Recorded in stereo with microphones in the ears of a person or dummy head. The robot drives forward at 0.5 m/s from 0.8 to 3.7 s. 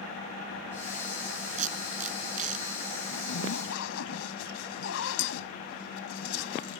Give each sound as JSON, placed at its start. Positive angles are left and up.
{"t": 1.6, "sound": "tape being pulled", "side_deg": -40}
{"t": 3.1, "sound": "a zipper", "side_deg": 75}